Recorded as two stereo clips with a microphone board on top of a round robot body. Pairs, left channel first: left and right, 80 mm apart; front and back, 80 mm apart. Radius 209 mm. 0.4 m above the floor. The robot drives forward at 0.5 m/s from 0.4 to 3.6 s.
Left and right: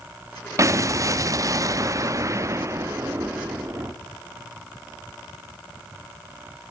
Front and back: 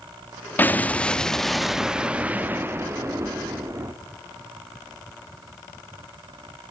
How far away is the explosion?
About 1.4 m.